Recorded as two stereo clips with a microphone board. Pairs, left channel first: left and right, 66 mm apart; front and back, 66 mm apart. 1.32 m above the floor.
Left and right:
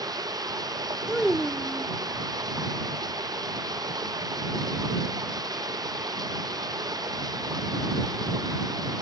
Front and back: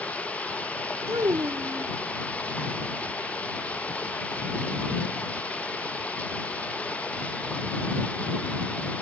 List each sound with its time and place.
0.0 s running water: 70° right
1.1 s a child speaking: 170° right